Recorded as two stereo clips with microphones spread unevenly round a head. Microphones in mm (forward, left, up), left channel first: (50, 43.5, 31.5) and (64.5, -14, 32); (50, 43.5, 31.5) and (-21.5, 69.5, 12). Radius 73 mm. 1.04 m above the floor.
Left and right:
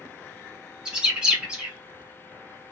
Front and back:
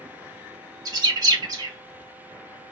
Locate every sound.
0.8 s a bird: 155° right, 0.6 m